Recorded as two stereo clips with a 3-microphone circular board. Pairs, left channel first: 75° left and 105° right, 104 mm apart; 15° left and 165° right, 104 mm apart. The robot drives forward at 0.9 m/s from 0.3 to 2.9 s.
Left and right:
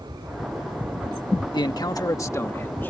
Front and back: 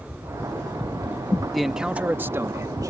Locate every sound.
1.5 s a man speaking: 105° left; by 2.9 s 140° left